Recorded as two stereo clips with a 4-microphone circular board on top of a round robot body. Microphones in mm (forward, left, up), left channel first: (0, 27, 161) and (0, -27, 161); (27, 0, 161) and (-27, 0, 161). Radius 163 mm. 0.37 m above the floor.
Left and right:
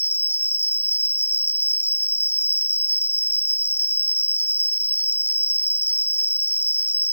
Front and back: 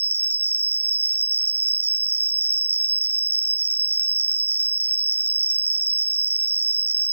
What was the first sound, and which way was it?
An insect, 130° left.